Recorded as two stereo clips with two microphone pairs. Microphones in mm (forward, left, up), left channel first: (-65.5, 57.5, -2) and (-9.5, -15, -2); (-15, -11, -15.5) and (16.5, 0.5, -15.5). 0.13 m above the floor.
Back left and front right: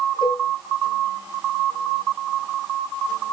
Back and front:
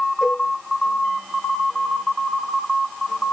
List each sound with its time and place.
0.2 s a cowbell: 100° left, 4 m